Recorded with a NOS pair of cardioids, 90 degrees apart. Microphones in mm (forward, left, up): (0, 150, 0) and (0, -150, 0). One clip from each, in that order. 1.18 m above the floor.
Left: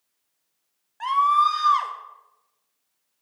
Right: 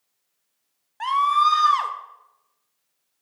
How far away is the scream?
About 1.0 m.